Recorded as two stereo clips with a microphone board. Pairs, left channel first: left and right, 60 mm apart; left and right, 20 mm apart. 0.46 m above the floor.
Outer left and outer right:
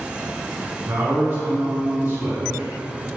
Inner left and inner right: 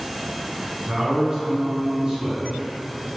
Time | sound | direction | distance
0.9 | a man speaking | 45° right (ahead or behind) | 2.0 m